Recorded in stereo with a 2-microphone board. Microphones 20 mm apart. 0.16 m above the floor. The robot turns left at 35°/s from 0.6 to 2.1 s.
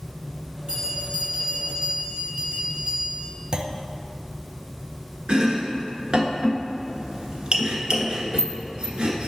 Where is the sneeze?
No sneeze in this recording.